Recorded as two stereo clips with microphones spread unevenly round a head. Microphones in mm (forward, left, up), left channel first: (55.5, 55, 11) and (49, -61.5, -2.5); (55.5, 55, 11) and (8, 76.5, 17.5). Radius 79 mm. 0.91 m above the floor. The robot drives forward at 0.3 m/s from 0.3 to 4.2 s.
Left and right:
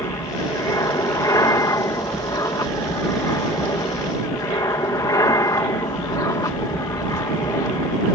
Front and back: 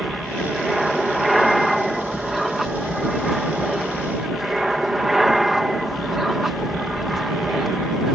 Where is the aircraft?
60° left; by 8.2 s 70° left.